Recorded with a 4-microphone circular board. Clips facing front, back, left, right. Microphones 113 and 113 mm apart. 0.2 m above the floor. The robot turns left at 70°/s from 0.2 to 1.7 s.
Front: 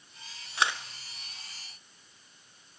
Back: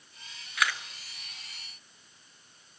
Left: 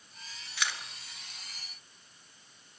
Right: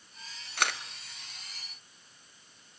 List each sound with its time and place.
0.6 s a camera shutter: 55° right, 1.3 m; by 0.8 s 70° right, 1.3 m